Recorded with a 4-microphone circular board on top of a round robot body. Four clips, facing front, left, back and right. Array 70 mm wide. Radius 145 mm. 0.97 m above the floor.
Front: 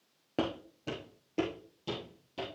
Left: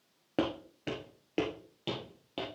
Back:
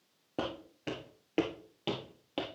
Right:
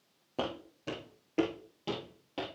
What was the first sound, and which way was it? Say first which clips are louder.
Footsteps: left 4 dB, front 3 dB; 60° left.